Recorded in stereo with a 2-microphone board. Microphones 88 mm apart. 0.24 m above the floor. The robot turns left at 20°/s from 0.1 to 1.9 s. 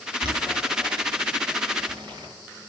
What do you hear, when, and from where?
0.2 s boiling: 70° right (ahead or behind), 4.5 m; by 2.3 s 55° right (ahead or behind), 4.5 m